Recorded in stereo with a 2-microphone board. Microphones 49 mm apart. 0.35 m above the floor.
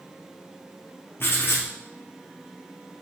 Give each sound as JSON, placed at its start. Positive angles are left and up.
{"t": 1.2, "sound": "writing", "side_deg": 55, "distance_m": 1.4}